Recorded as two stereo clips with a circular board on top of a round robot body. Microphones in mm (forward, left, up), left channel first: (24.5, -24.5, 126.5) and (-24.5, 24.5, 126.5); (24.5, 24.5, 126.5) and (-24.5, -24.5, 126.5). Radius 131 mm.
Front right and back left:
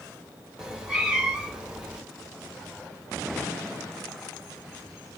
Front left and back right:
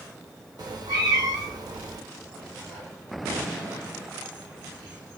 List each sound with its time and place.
0.6 s a cat meowing: 145° right, 1.3 m